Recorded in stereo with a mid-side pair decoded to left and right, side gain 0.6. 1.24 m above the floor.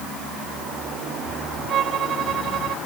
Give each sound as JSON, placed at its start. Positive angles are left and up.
{"t": 1.7, "sound": "a violin", "azimuth_deg": -50}